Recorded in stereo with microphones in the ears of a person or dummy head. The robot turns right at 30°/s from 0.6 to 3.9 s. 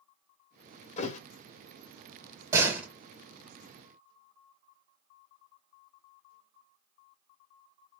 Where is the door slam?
20° right (ahead or behind), 1.8 m; by 2.9 s 10° right (ahead or behind), 1.8 m.